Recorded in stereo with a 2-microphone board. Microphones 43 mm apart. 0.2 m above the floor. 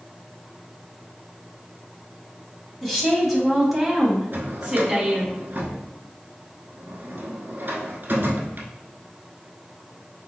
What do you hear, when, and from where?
2.8 s a woman speaking: 5° left (ahead or behind), 1.0 m; by 5.3 s 5° right (ahead or behind), 1.4 m
4.3 s a drawer: 55° right (ahead or behind), 0.7 m